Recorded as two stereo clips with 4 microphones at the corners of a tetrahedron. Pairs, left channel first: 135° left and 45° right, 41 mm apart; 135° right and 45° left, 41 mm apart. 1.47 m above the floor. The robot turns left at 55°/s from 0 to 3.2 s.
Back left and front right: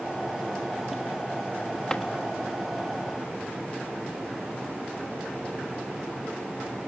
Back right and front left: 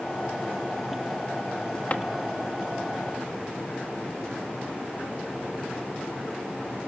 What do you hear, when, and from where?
1.9 s a drawer: 160° right, 1.0 m; by 2.0 s 170° right, 1.0 m